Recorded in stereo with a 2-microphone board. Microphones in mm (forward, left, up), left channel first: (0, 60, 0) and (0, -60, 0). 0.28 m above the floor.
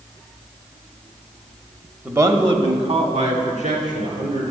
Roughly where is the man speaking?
Centre.